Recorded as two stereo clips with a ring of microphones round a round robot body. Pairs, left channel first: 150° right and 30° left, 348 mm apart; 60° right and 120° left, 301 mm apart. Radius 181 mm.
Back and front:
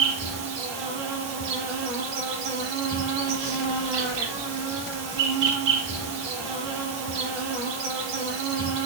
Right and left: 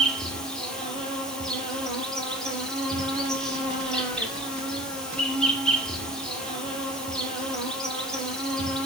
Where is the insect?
30° left, 5 m.